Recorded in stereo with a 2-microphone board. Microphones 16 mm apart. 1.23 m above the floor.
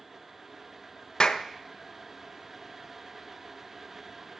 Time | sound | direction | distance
1.2 | a clap | 55° left (ahead or behind) | 1.0 m